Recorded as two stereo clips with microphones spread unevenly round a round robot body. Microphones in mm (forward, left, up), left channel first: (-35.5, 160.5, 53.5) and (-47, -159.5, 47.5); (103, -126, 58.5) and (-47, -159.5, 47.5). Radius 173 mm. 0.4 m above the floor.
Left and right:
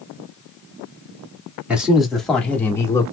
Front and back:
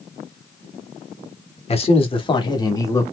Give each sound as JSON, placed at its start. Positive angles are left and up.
{"t": 1.7, "sound": "a man speaking", "azimuth_deg": -10, "distance_m": 1.4}